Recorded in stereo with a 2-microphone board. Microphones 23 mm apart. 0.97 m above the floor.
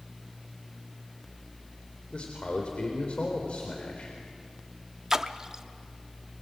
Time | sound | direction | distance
2.1 | a man speaking | 55° left (ahead or behind) | 3.5 m
5.1 | a splash | 25° right (ahead or behind) | 0.9 m